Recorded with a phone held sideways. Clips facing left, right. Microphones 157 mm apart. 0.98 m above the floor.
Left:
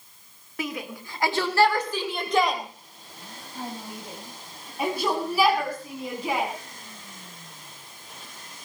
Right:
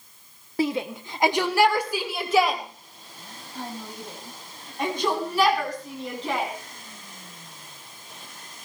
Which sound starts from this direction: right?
A shout, at 0.6 s.